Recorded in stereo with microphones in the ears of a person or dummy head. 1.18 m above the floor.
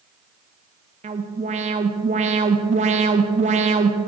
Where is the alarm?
35° right (ahead or behind), 0.8 m.